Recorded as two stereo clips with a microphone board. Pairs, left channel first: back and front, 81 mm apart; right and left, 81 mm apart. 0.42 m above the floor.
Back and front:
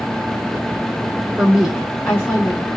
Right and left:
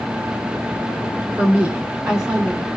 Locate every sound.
1.4 s a woman speaking: 40° left, 1.0 m; by 2.7 s 175° left, 1.2 m